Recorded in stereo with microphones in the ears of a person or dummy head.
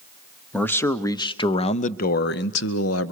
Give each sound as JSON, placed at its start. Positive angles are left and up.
{"t": 0.5, "sound": "a man speaking", "side_deg": 5, "distance_m": 1.1}